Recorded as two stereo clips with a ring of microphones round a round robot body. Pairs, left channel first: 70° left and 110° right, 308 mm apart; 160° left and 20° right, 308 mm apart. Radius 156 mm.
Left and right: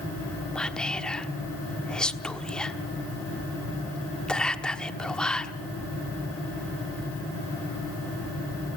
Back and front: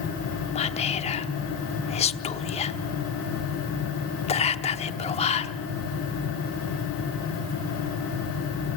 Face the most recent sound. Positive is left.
turn(degrees=150)